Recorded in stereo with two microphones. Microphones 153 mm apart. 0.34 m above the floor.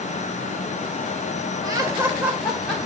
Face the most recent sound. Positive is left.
turn(degrees=5)  # may be behind; listen again after turning